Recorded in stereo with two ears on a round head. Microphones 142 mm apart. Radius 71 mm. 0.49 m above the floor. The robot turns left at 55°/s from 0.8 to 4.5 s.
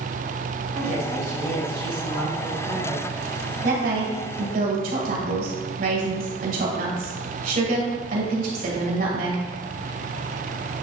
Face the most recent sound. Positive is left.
turn(degrees=-60)  # may be behind; listen again after turning